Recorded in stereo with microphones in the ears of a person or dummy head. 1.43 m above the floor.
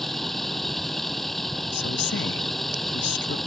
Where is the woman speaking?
55° left (ahead or behind).